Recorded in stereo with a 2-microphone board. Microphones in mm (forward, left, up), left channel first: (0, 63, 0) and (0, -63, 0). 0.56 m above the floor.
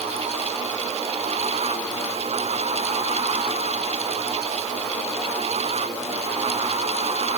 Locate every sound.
Only background noise.